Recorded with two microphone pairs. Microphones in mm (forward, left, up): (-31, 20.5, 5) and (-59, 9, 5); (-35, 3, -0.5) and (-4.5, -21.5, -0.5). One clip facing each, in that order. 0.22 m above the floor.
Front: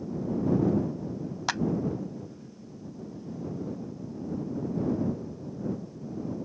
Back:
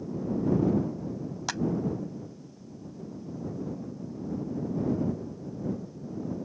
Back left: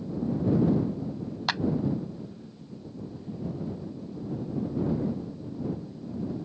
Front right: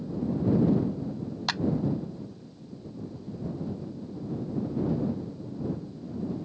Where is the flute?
No flute in this recording.